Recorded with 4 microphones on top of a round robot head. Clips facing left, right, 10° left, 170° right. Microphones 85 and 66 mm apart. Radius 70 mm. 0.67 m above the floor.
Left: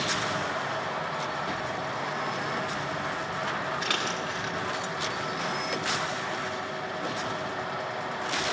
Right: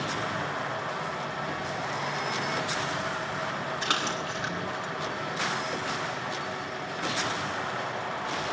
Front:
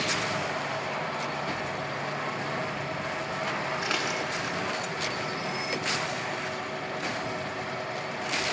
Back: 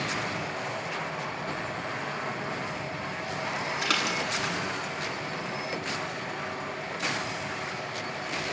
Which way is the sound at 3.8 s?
155° right.